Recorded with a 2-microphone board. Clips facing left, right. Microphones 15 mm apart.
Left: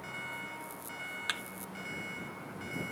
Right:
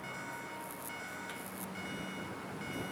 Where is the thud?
55° left (ahead or behind).